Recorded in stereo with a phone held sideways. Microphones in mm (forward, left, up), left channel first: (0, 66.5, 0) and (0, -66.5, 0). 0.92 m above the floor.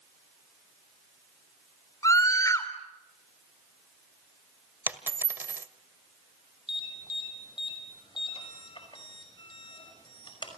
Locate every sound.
2.0 s a scream: 25° left (ahead or behind), 3.5 m
4.9 s a dropped coin: 15° right (ahead or behind), 1.6 m
6.7 s an alarm: 40° left (ahead or behind), 5.5 m